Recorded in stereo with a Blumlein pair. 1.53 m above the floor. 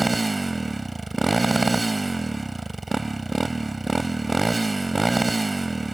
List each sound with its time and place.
0.0 s a motorcycle: 10° right